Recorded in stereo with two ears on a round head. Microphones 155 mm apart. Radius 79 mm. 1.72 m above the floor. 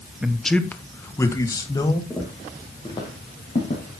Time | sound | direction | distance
0.2 | a man speaking | 5° right (ahead or behind) | 0.8 m
2.1 | footsteps | 5° left (ahead or behind) | 4 m